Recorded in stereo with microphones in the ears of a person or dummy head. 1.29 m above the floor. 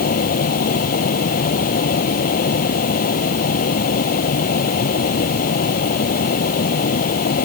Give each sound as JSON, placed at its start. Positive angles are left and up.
{"t": 0.0, "sound": "a fan", "side_deg": 50}